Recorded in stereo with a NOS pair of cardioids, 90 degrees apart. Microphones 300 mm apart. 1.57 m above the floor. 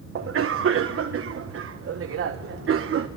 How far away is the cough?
About 1.2 m.